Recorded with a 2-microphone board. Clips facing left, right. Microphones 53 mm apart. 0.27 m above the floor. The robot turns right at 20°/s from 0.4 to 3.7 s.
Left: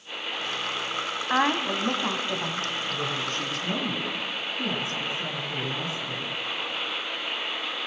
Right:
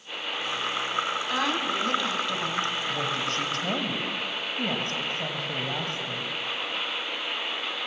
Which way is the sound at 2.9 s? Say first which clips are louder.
Right 1 dB; 70° right (ahead or behind).